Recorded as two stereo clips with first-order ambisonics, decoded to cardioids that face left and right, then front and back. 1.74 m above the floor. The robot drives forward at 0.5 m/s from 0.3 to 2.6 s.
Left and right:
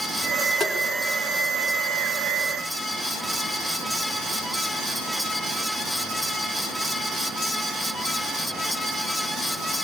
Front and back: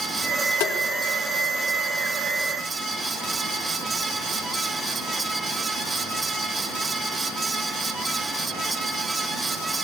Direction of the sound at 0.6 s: Straight ahead.